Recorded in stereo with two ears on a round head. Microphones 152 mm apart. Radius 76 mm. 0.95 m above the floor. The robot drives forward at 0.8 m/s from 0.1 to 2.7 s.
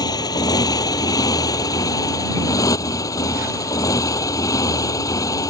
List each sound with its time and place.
0.0 s a motorcycle: 25° left (ahead or behind); by 5.5 s 20° left (ahead or behind)